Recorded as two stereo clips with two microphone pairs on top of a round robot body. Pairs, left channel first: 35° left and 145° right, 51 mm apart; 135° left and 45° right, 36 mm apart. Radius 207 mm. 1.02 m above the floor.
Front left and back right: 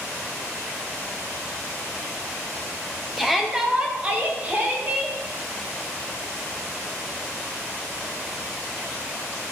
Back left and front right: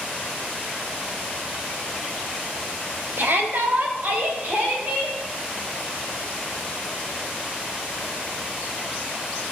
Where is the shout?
55° right, 1.5 m; by 5.2 s 90° right, 3 m.